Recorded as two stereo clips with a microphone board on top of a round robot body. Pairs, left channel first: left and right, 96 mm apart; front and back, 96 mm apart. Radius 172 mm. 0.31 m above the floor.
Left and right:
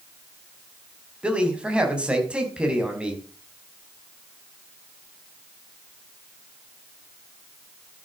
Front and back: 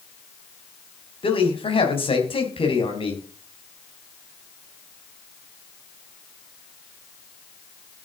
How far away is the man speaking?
About 4.5 m.